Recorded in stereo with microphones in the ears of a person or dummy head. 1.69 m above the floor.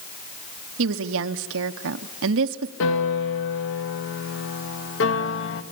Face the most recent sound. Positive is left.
turn(degrees=75)  # may be behind; listen again after turning